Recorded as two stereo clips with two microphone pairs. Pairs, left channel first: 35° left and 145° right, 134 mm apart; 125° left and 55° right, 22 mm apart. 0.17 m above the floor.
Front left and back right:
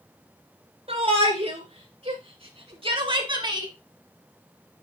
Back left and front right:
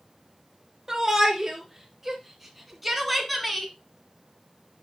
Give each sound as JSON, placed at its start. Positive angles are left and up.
{"t": 0.9, "sound": "a shout", "azimuth_deg": -120, "distance_m": 2.5}